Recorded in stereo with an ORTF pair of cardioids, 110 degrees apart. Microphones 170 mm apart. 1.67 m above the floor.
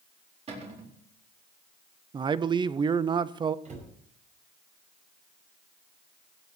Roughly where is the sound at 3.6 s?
Ahead right.